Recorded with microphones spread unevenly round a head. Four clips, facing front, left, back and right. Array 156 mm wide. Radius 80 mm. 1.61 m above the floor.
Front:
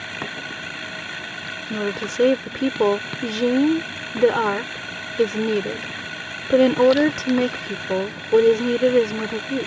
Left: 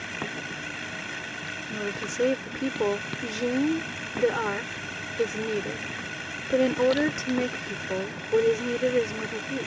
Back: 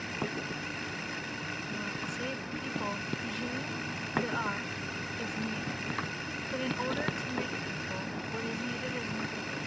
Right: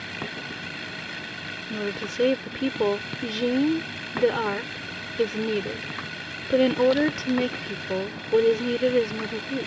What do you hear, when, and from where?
0.0 s a machine running: straight ahead
1.7 s a woman speaking: 10° right